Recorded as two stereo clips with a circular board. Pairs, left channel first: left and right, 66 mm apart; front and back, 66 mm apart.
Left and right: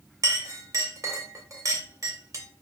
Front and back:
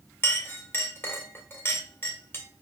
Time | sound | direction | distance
0.2 | a clink | 55° right | 1.8 m